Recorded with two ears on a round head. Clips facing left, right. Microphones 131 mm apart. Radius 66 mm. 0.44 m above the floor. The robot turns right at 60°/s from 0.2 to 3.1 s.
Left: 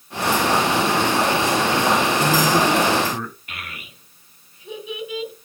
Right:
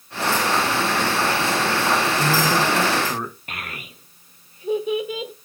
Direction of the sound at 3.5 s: 35° right (ahead or behind).